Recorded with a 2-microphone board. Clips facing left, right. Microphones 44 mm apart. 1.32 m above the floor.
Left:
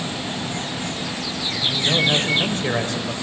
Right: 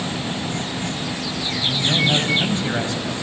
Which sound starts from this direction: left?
A man speaking, at 1.6 s.